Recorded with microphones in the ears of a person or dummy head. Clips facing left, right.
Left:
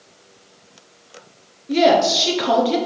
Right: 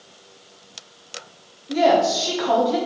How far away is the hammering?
I don't hear hammering.